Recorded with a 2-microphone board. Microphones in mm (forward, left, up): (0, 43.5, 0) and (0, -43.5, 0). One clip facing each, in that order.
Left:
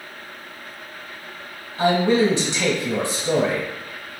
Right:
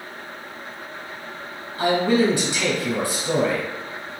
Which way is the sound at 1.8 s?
25° left (ahead or behind).